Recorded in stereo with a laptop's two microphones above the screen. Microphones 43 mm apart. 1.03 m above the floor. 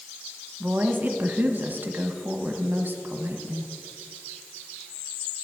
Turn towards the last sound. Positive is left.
turn(degrees=-45)  # may be behind; listen again after turning